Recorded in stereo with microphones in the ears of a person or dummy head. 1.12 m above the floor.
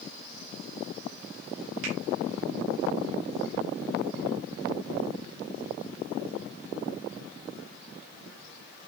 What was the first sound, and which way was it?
A finger snap, 75° right (ahead or behind).